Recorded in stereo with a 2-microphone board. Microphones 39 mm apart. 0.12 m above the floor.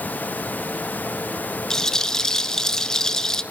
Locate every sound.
1.7 s a rattle: 15° left (ahead or behind), 0.7 m